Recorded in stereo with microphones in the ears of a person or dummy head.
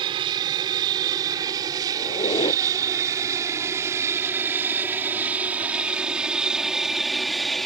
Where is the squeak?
25° left (ahead or behind).